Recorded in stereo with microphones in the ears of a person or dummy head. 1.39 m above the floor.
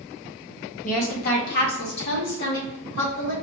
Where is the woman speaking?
50° left (ahead or behind), 1.5 m; by 3.3 s 85° left, 3.5 m.